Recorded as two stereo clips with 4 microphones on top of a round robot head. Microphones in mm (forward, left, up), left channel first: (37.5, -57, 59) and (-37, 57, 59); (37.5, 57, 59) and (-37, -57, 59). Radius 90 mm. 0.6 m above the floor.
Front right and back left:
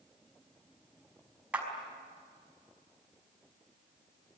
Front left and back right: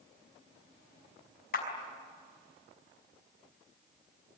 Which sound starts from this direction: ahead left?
A clap, at 1.5 s.